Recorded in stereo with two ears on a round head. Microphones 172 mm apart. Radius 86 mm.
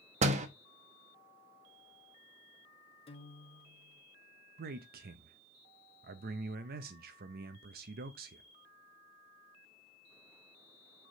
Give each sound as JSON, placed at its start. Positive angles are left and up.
{"t": 0.2, "sound": "a door slam", "side_deg": -35, "distance_m": 0.8}
{"t": 3.1, "sound": "a guitar", "side_deg": 30, "distance_m": 0.6}
{"t": 4.6, "sound": "a man speaking", "side_deg": -50, "distance_m": 0.5}